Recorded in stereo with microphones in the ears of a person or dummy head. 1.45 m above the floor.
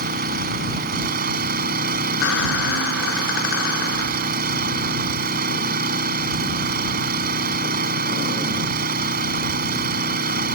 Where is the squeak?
70° left (ahead or behind).